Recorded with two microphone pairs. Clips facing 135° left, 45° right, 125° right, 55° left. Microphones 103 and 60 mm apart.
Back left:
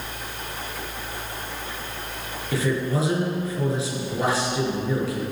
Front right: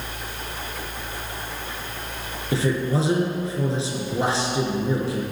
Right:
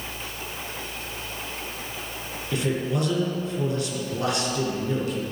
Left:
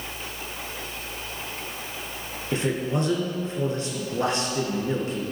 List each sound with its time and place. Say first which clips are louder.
2.5 s a man speaking: front right 1 dB, even; 10° left, 2.0 m